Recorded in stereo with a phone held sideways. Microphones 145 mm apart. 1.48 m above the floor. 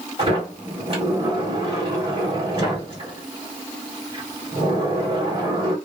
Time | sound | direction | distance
0.2 | a sliding door | 45° right (ahead or behind) | 1.8 m